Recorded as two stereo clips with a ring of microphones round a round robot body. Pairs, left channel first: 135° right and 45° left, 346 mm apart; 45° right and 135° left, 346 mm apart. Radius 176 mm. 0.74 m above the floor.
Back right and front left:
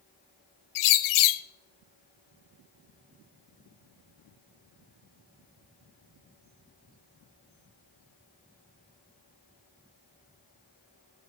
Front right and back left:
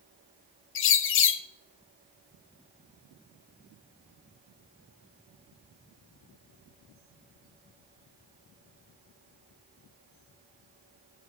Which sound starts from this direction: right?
A bird, at 0.8 s.